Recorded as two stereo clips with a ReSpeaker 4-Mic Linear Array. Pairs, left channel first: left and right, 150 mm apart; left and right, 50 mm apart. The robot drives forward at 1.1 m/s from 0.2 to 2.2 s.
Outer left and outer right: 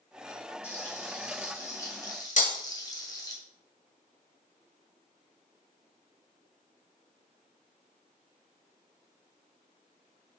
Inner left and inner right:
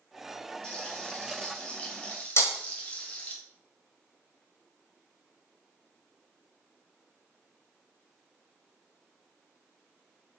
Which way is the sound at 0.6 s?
15° left (ahead or behind).